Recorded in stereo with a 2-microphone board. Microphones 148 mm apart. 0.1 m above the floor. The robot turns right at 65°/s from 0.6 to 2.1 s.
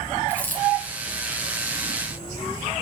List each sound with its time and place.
0.3 s a dropped coin: 10° left (ahead or behind), 2.5 m; by 0.6 s 15° left (ahead or behind), 2.5 m